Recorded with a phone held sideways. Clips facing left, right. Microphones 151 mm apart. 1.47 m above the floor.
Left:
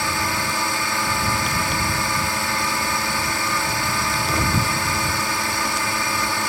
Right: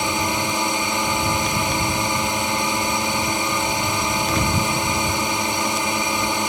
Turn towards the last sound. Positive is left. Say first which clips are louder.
# right 3 dB
turn(degrees=-20)  # may be behind; listen again after turning